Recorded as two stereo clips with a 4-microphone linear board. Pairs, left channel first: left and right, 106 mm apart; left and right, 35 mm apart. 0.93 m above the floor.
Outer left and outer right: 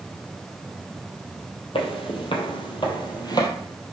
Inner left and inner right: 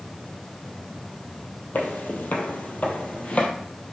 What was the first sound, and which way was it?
Footsteps, 60° left (ahead or behind).